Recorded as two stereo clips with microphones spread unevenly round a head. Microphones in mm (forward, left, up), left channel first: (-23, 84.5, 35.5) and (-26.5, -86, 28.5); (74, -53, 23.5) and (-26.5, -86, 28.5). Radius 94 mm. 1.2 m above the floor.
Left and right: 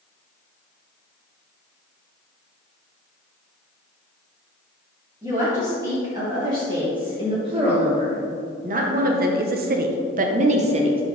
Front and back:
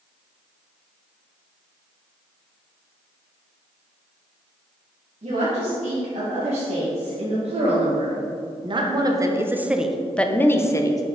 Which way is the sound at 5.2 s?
160° right.